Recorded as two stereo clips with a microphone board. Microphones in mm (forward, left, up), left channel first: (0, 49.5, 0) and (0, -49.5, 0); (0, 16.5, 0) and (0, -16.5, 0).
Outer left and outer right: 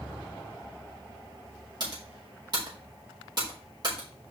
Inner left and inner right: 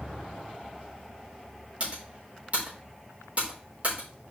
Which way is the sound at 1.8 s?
45° right (ahead or behind).